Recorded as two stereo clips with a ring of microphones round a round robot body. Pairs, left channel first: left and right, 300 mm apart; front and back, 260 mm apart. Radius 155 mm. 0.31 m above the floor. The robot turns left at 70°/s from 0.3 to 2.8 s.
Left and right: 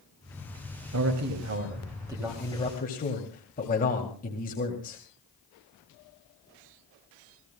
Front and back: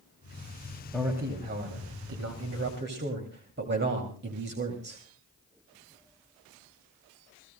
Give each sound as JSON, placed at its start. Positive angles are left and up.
{"t": 0.9, "sound": "a man speaking", "azimuth_deg": -85, "distance_m": 2.0}